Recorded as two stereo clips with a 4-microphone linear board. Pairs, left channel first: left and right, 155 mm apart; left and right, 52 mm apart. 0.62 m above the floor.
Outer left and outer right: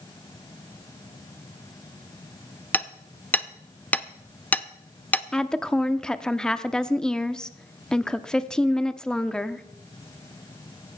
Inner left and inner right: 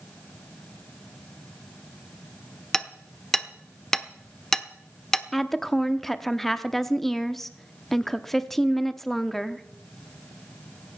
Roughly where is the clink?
No clink in this recording.